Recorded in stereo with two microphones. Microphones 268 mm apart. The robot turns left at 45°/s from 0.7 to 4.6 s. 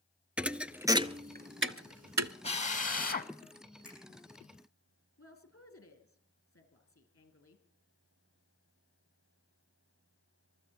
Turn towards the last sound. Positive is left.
turn(degrees=50)  # may be behind; listen again after turning